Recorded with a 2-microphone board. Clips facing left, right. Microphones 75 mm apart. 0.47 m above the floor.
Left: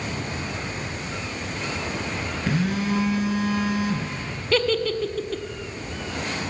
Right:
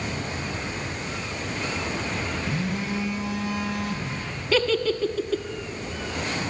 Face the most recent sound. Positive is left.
turn(degrees=0)  # may be behind; listen again after turning